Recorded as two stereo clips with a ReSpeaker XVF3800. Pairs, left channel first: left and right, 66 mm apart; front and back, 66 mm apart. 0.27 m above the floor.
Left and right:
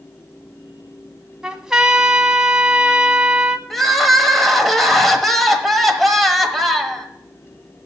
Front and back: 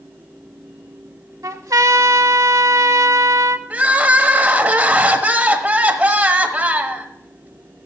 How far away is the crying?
About 1.1 m.